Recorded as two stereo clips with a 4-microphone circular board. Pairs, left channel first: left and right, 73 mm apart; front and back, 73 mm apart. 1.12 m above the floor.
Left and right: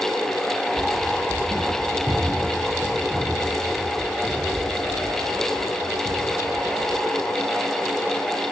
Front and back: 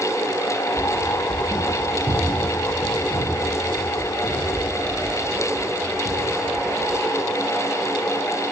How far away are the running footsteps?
About 2.5 m.